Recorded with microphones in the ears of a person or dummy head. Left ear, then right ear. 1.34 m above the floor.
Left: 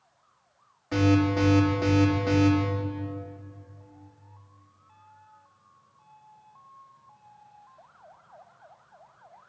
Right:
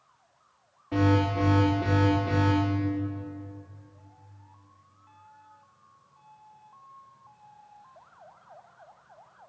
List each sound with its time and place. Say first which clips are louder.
0.9 s an alarm: left 2 dB; 75° left (ahead or behind), 4 m